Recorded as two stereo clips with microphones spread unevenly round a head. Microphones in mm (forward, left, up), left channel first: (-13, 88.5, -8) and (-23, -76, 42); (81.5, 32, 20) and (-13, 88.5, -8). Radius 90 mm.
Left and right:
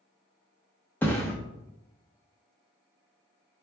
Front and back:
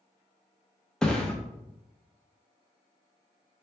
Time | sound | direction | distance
1.0 | a thud | 25° right | 0.7 m